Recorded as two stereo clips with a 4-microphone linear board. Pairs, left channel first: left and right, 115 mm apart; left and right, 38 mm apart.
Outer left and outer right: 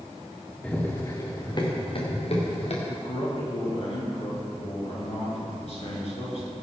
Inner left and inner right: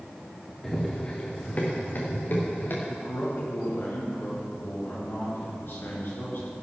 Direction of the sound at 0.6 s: 10° left (ahead or behind).